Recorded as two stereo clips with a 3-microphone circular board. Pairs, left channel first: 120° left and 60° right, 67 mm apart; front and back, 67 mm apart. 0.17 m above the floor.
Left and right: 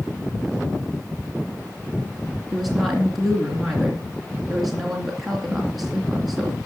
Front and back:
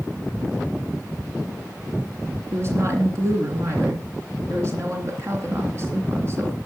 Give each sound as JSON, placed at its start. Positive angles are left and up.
{"t": 2.5, "sound": "a woman speaking", "azimuth_deg": -145, "distance_m": 2.5}